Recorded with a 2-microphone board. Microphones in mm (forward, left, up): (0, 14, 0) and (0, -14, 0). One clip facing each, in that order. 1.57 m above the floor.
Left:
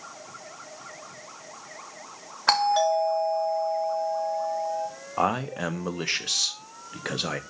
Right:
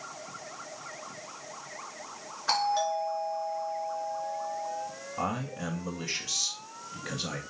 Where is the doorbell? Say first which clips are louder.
Left 6 dB; 65° left (ahead or behind), 1.8 m.